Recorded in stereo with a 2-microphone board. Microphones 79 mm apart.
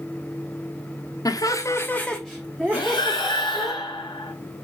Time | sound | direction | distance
1.2 | laughter | 50° left (ahead or behind) | 1.1 m
2.7 | breathing | 70° left (ahead or behind) | 3.5 m